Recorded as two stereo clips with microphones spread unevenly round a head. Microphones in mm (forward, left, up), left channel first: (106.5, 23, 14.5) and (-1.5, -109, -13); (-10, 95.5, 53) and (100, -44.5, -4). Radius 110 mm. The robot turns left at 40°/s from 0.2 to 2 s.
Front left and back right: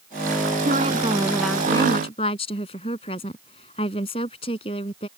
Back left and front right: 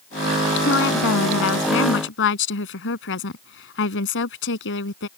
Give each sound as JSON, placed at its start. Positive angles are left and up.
{"t": 0.6, "sound": "a woman speaking", "azimuth_deg": 175}